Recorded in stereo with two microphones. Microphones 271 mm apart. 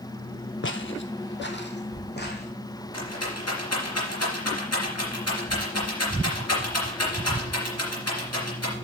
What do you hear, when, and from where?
0.6 s footsteps: 45° left (ahead or behind), 0.7 m; by 2.5 s 40° left (ahead or behind), 1.8 m
2.9 s a rattle: 65° left (ahead or behind), 3 m